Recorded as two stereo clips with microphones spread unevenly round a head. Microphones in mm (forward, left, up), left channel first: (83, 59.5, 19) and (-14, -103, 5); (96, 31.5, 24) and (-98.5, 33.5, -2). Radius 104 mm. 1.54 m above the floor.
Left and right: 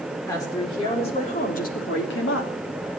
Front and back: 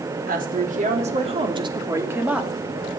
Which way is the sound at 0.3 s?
135° left.